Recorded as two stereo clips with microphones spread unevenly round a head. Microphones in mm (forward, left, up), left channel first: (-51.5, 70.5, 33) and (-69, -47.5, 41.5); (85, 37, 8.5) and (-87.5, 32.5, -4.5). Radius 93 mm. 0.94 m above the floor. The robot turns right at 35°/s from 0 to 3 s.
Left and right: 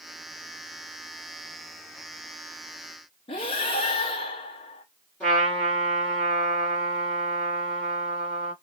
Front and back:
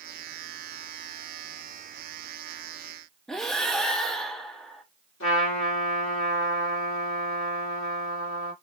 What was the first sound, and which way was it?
Breathing, 80° left.